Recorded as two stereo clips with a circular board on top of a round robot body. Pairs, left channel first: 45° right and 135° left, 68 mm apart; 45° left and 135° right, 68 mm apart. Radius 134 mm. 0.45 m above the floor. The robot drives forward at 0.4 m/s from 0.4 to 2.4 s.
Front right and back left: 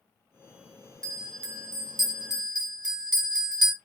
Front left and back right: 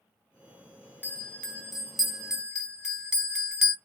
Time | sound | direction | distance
1.0 | a bell | 110° left | 0.7 m